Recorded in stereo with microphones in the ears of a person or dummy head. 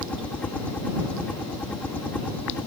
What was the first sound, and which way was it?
A helicopter, 10° left (ahead or behind).